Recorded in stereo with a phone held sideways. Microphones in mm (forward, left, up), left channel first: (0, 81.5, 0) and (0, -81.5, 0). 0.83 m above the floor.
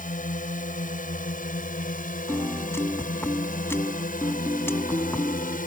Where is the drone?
55° left (ahead or behind).